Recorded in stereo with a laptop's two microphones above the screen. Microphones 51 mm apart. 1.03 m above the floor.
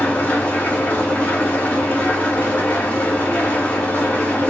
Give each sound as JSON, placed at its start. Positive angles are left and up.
{"t": 0.0, "sound": "an engine running", "side_deg": 25, "distance_m": 1.0}